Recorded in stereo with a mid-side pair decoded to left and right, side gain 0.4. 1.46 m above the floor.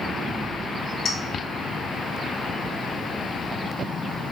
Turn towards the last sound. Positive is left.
turn(degrees=65)